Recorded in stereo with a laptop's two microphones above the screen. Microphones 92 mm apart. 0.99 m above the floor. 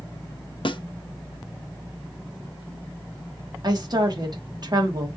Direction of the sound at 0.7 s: 65° left (ahead or behind).